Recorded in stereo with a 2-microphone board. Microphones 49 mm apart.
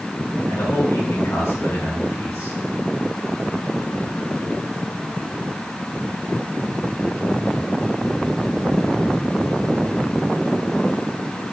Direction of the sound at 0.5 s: 75° left (ahead or behind).